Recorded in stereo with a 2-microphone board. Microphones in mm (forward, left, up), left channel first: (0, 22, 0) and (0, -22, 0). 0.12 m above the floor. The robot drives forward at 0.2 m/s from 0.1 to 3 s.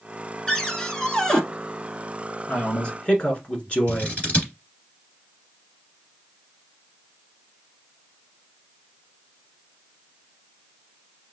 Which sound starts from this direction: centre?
A cupboard door, at 0.5 s.